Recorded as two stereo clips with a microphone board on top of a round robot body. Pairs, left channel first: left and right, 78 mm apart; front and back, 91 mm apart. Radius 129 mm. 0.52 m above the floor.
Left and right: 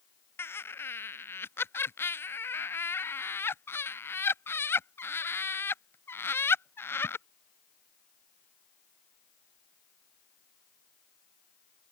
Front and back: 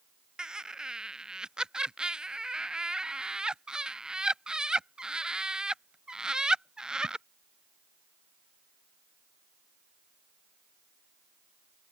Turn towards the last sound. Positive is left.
turn(degrees=105)